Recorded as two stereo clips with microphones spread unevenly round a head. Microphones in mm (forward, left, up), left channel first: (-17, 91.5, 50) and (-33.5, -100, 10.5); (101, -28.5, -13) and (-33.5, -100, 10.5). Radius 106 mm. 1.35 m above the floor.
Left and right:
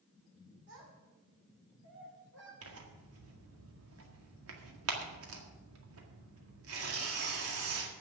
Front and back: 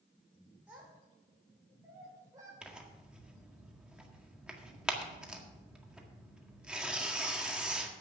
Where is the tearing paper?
70° right, 1.8 m.